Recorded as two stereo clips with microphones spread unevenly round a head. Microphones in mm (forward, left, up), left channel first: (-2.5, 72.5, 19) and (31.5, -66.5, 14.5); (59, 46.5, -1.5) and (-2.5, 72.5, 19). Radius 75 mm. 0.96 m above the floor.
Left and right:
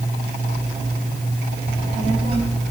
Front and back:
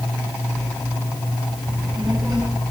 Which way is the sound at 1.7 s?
135° right.